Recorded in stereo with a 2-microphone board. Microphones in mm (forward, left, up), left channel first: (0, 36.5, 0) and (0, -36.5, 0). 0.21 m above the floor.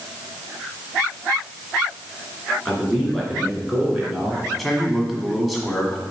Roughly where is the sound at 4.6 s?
Centre.